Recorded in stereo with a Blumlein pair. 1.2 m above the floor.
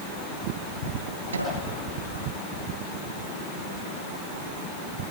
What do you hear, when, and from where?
1.3 s a microwave: 70° right, 8.5 m